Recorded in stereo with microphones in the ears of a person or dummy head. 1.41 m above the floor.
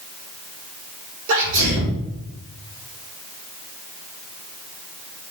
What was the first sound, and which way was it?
A sneeze, 70° right (ahead or behind).